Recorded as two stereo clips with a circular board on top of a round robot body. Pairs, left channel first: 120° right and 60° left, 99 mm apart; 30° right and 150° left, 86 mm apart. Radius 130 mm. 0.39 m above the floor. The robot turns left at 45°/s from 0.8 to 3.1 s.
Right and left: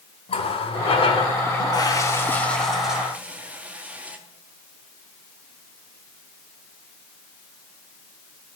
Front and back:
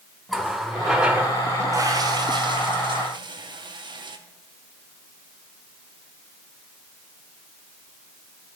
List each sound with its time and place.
0.3 s a running tap: 120° right, 1.1 m; by 4.2 s 135° left, 1.1 m